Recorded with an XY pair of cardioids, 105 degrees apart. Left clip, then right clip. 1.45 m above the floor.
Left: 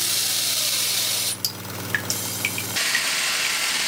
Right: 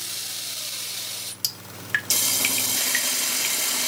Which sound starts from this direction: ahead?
Dripping, at 1.4 s.